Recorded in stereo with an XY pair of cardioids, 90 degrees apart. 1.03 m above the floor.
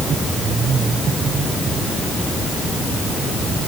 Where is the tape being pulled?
I don't hear tape being pulled.